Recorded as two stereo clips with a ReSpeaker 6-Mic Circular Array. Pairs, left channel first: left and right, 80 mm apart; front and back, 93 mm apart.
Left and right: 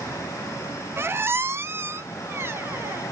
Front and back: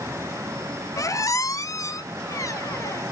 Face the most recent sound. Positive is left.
turn(degrees=-40)